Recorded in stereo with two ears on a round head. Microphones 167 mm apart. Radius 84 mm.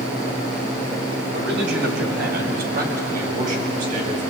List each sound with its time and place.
1.3 s a man speaking: 65° right (ahead or behind), 5.5 m; by 4.2 s 40° right (ahead or behind), 7.5 m